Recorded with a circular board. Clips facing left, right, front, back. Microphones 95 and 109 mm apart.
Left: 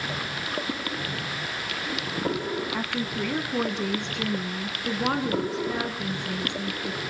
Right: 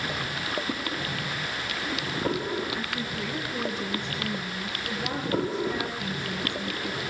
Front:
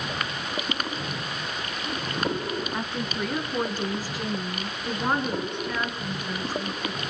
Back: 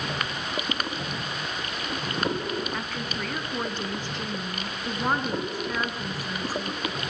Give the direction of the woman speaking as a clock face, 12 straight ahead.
10 o'clock.